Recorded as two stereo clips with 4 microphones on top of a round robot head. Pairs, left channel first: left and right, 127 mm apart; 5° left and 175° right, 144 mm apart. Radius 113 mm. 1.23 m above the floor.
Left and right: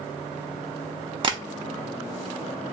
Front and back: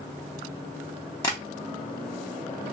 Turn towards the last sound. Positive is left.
turn(degrees=-55)